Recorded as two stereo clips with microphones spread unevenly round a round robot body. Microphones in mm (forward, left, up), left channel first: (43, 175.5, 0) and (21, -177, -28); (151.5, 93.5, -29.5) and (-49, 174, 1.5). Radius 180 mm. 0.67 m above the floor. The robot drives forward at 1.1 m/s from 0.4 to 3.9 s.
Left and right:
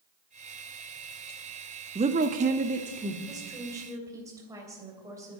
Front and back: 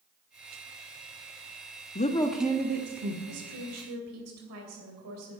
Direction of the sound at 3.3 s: 175° right.